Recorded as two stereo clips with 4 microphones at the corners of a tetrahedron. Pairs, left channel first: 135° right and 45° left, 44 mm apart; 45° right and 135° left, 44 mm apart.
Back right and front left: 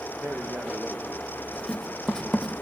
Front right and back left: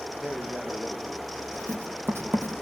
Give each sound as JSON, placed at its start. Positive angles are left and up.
{"t": 0.2, "sound": "a man speaking", "azimuth_deg": 70, "distance_m": 7.5}
{"t": 1.5, "sound": "writing", "azimuth_deg": 150, "distance_m": 3.5}